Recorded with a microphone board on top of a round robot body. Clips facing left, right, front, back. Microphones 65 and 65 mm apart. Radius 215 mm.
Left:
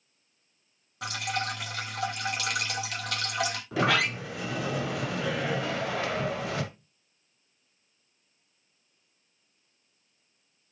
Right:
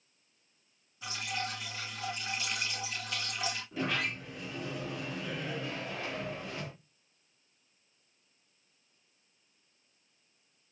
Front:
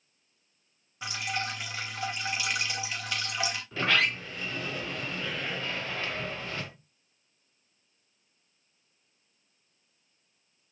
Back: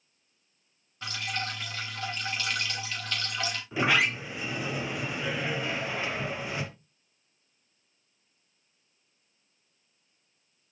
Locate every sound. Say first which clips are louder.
1.0 s dripping: left 6 dB, front 1 dB; 75° left, 3.5 m
3.7 s a sliding door: left 10 dB, back 2 dB; 105° left, 1.1 m